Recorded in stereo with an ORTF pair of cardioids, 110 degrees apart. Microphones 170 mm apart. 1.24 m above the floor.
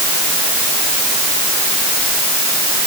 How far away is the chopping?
I don't hear chopping.